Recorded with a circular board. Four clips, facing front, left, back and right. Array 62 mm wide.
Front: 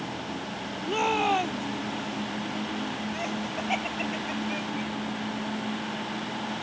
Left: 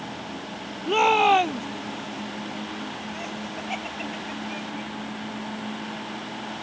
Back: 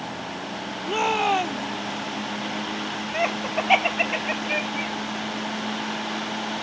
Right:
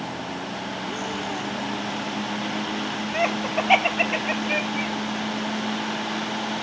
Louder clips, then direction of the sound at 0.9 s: Left 15 dB, back 3 dB; 100° left.